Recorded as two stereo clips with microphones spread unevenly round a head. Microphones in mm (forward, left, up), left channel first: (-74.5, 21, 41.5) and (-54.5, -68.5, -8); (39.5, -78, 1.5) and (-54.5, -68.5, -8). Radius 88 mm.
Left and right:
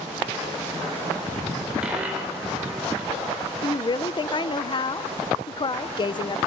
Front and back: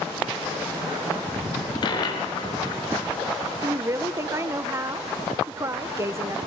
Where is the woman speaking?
155° left, 0.8 m.